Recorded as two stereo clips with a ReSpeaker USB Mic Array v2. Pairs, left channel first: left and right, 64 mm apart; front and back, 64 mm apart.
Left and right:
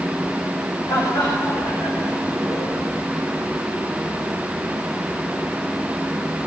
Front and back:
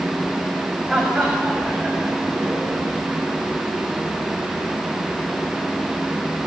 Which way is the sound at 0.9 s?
100° left.